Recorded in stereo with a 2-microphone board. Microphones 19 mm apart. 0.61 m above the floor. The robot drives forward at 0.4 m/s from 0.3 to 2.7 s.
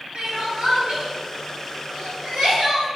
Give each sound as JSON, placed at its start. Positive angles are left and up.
{"t": 0.1, "sound": "crying", "side_deg": -65, "distance_m": 1.9}